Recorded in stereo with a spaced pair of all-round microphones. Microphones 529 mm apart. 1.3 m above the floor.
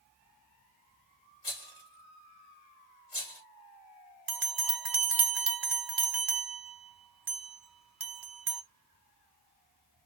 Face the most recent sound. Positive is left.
turn(degrees=-45)  # may be behind; listen again after turning